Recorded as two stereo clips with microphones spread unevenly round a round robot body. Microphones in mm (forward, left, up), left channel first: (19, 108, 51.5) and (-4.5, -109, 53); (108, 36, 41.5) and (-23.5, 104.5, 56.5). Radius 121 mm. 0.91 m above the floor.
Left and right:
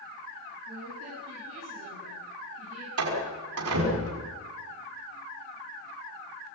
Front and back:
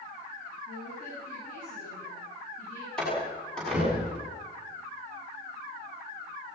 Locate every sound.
0.7 s a woman speaking: 70° right, 9.5 m
3.0 s a door slam: 115° right, 6.5 m